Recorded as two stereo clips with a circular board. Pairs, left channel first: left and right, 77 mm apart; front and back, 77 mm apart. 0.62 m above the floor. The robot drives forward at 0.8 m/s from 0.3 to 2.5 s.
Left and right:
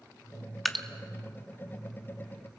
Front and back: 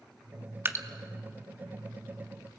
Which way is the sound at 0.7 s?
Straight behind.